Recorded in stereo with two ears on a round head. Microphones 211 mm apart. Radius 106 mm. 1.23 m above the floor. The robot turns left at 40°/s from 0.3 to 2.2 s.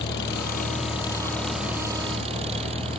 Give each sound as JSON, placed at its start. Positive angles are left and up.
{"t": 0.0, "sound": "an engine running", "azimuth_deg": 50}